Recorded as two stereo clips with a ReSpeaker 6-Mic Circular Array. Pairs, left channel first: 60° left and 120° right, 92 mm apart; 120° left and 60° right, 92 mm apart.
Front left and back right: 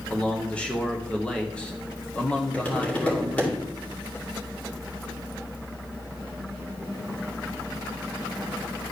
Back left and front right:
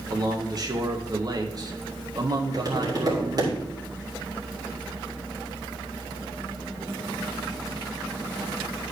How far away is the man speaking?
About 1.1 m.